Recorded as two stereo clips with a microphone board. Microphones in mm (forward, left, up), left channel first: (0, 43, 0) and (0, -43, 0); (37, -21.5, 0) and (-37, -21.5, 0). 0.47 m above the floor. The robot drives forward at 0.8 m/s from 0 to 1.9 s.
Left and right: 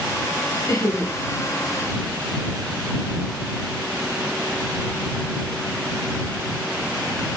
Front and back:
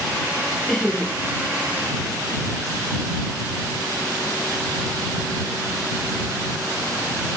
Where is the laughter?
75° left, 0.9 m; by 1.1 s 105° left, 0.9 m.